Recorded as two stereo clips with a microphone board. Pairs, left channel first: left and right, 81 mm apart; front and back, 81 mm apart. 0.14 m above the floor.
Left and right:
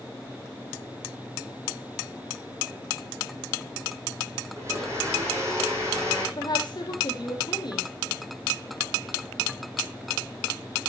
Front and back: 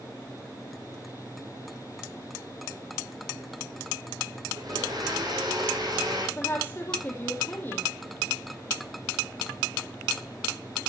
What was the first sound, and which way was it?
A blender, 145° right.